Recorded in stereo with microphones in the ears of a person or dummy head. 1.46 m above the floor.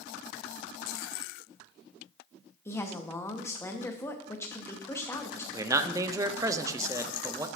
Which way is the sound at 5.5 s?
15° right (ahead or behind).